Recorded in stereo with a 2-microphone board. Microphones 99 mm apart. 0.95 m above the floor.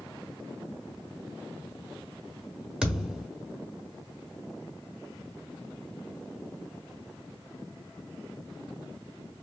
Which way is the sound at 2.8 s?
5° right (ahead or behind).